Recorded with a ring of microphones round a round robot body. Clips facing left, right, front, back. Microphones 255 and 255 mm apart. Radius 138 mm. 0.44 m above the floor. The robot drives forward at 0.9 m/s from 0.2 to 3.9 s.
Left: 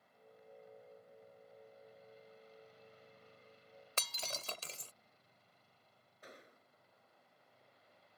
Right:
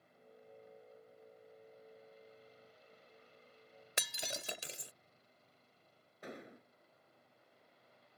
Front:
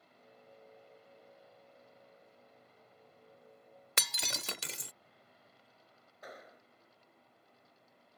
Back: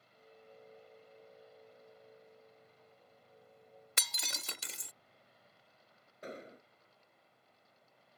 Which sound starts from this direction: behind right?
An explosion, at 6.2 s.